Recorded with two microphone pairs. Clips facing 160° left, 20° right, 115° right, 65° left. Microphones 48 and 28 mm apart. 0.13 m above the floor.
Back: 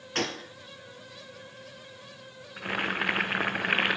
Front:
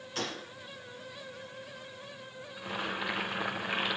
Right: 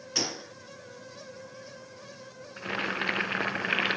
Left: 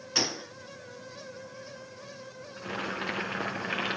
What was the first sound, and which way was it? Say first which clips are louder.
A gunshot: back 6 dB, left 2 dB; 135° left.